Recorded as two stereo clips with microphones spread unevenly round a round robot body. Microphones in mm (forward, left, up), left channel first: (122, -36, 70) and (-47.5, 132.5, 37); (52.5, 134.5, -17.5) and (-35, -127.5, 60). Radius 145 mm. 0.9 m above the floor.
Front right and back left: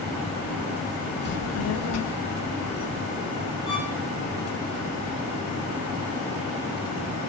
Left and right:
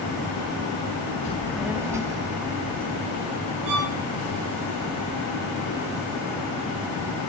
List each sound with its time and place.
1.2 s a child speaking: 10° left, 0.5 m; by 3.6 s 40° right, 3 m
3.7 s a violin: 115° right, 5 m